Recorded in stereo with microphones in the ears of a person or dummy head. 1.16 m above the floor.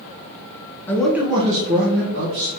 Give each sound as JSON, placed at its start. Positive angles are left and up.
{"t": 0.9, "sound": "a man speaking", "side_deg": 15, "distance_m": 0.7}